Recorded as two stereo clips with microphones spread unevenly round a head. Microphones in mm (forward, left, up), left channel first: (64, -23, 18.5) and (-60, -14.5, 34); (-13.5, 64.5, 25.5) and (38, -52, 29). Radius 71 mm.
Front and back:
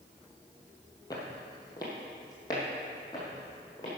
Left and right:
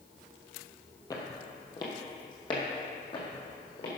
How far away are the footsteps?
About 1.6 m.